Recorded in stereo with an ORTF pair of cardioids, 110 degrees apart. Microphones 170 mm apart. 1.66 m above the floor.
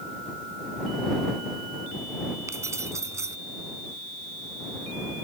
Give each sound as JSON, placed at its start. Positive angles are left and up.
{"t": 2.5, "sound": "keys jangling", "azimuth_deg": -15}